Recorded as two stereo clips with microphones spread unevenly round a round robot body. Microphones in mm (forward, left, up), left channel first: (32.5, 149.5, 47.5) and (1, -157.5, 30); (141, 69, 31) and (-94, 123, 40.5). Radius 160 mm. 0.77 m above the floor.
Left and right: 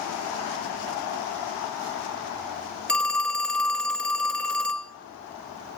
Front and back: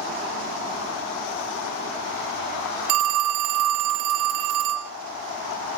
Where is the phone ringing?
170° left, 0.5 m.